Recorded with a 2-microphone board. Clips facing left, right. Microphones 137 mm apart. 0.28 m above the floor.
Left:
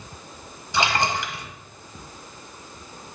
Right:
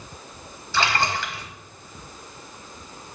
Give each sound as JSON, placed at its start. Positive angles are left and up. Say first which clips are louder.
{"t": 0.7, "sound": "a splash", "louder": "left 1 dB", "side_deg": 20, "distance_m": 1.2}